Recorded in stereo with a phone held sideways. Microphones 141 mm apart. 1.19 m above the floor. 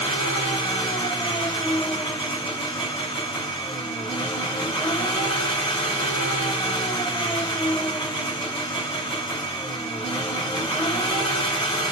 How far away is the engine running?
About 1.5 m.